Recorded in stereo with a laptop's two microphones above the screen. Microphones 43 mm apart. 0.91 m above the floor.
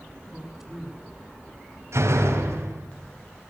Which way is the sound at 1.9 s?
90° right.